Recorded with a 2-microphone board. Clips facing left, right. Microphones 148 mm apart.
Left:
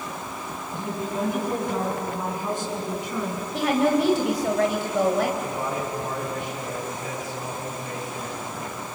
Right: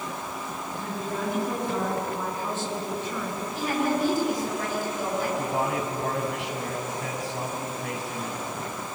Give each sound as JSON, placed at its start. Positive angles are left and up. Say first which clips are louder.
{"t": 0.7, "sound": "a woman speaking", "louder": "left 4 dB", "side_deg": 20, "distance_m": 8.0}
{"t": 3.5, "sound": "a woman speaking", "louder": "left 5 dB", "side_deg": 75, "distance_m": 3.0}
{"t": 5.4, "sound": "a man speaking", "louder": "right 1 dB", "side_deg": -80, "distance_m": 6.0}